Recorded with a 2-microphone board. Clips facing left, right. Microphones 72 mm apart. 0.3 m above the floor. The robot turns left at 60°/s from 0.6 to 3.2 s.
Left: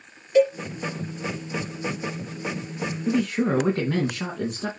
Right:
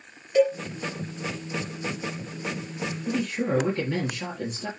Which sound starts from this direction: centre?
A cowbell, at 0.3 s.